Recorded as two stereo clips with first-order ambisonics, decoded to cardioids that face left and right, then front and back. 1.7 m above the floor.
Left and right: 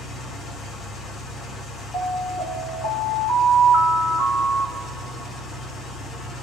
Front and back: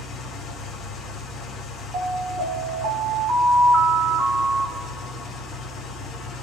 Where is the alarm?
155° left, 2 m.